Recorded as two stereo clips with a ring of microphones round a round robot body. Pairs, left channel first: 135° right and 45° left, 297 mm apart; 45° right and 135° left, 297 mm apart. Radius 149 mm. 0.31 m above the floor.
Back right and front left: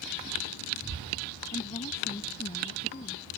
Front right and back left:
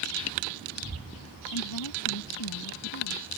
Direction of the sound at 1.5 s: 65° right.